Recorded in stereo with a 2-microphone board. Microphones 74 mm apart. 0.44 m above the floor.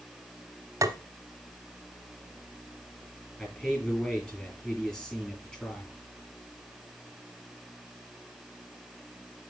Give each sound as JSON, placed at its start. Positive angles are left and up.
{"t": 0.8, "sound": "tapping", "side_deg": -45, "distance_m": 1.1}
{"t": 3.4, "sound": "a man speaking", "side_deg": 15, "distance_m": 7.0}